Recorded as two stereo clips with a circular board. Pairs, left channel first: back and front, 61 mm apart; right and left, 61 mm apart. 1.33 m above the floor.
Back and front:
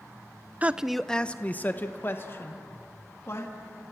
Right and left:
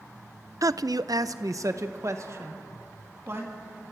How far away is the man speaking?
About 0.5 m.